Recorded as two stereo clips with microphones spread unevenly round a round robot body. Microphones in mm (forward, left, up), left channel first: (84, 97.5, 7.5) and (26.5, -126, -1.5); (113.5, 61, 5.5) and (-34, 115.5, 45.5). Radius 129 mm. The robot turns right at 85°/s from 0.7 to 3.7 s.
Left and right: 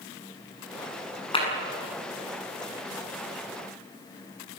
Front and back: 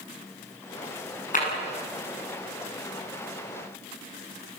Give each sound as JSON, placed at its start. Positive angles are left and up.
{"t": 1.3, "sound": "a clap", "azimuth_deg": 10, "distance_m": 8.0}